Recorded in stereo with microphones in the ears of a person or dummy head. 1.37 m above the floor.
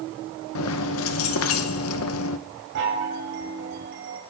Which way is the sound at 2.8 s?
70° right (ahead or behind).